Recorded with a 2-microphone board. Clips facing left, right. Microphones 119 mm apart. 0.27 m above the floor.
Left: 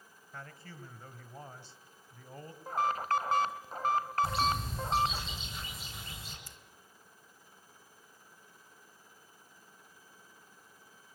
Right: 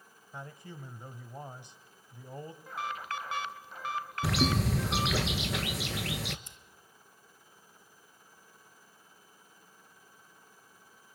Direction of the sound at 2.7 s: 40° left (ahead or behind).